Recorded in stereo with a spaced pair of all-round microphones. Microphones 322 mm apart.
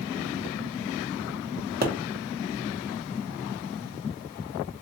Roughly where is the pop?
Right.